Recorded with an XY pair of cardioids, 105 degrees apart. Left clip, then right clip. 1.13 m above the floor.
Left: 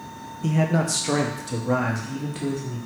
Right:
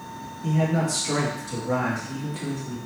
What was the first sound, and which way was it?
A man speaking, 70° left.